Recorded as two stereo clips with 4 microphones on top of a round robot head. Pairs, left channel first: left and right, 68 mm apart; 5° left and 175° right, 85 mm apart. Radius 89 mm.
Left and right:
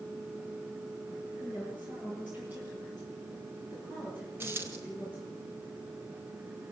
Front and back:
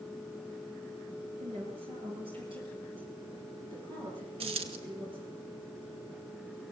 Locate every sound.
1.4 s a woman speaking: 160° right, 8 m; by 5.4 s 155° right, 13.5 m
4.4 s a dropped coin: 155° right, 1.1 m